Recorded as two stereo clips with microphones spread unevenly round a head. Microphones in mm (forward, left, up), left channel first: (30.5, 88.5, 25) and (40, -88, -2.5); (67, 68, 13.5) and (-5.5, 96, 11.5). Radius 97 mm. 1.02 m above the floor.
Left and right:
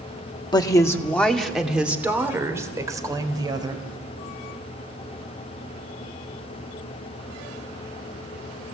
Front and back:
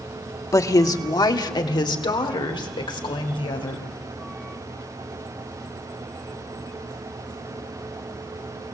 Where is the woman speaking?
25° left, 2 m; by 3.9 s 20° right, 5 m.